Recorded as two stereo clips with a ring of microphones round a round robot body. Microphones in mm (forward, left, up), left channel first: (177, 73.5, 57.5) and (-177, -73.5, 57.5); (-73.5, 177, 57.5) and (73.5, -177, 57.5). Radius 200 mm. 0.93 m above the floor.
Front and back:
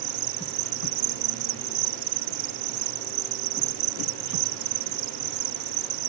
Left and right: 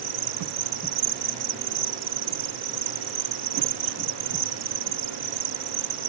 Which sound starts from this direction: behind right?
An insect, at 0.0 s.